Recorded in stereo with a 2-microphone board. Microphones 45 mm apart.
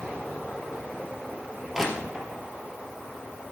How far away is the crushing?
About 2.5 m.